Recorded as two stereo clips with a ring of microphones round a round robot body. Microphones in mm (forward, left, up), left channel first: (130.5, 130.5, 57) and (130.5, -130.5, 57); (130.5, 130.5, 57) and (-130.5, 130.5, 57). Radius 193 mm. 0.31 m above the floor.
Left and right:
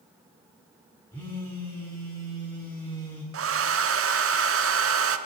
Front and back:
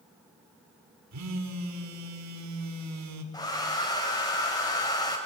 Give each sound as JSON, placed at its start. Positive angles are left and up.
{"t": 1.1, "sound": "a phone buzzing", "azimuth_deg": 175, "distance_m": 1.9}
{"t": 3.3, "sound": "a hair dryer", "azimuth_deg": -75, "distance_m": 1.1}